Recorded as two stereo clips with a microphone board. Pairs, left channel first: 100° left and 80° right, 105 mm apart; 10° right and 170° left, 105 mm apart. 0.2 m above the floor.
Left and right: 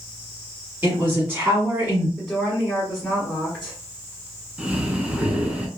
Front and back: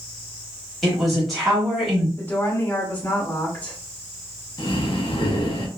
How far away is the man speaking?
About 1.3 m.